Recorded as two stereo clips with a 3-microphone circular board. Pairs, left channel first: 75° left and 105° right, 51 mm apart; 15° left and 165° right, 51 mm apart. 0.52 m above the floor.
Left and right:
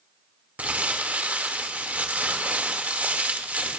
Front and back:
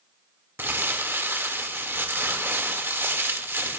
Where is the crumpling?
155° right, 1.5 m.